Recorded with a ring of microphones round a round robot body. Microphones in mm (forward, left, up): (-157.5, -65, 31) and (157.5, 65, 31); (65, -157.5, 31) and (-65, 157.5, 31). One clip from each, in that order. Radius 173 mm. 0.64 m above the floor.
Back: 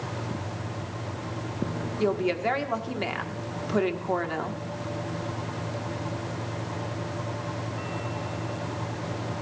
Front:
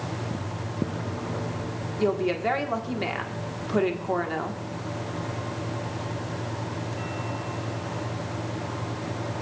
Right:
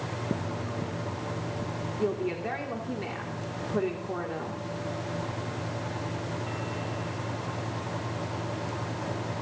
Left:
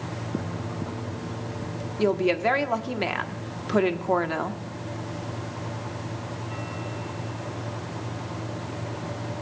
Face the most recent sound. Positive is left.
turn(degrees=120)